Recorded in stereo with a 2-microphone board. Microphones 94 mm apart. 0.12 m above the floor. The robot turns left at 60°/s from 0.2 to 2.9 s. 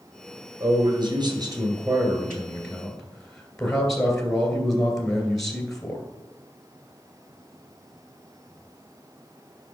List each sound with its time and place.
0.6 s a man speaking: 50° right, 2 m; by 6.0 s 175° left, 2 m